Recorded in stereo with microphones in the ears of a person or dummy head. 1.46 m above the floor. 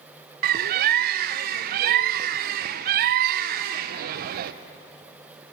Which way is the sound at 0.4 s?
50° right (ahead or behind).